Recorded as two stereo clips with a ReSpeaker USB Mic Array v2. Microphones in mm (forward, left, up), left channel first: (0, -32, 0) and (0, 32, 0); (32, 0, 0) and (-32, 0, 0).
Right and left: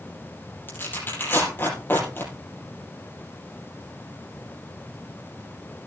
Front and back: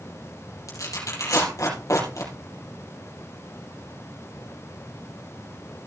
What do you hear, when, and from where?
0.7 s tearing paper: 35° right, 5 m